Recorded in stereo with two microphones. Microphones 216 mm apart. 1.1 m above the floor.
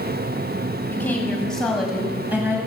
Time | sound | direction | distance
0.9 | a woman speaking | 10° left (ahead or behind) | 7.5 m